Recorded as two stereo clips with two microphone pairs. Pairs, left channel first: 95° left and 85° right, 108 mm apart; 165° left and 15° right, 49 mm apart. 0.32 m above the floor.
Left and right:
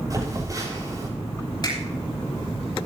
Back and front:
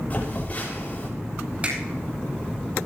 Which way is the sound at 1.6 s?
45° left.